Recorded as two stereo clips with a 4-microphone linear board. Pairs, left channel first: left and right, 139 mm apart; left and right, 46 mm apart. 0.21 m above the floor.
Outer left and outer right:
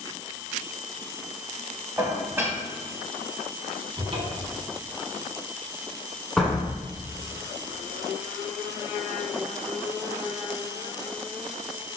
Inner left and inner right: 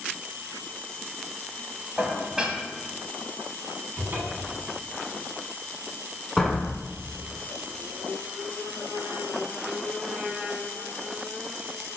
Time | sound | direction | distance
2.0 | dishes clattering | 20° right (ahead or behind) | 0.7 m
4.0 | a cupboard door | 45° right (ahead or behind) | 0.8 m
6.4 | a door slam | 5° left (ahead or behind) | 1.3 m